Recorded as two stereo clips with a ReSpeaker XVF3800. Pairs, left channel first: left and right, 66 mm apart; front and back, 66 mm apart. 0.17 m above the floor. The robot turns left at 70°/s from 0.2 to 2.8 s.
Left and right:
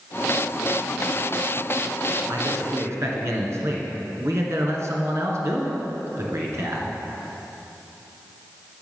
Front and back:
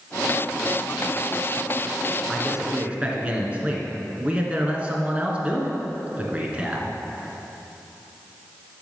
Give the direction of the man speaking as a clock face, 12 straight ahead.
3 o'clock.